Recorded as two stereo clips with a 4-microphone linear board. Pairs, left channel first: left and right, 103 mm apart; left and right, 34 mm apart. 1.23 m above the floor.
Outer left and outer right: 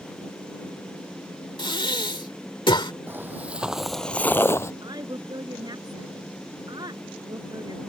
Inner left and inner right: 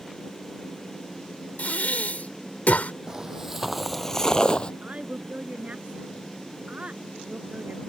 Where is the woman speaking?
45° right (ahead or behind).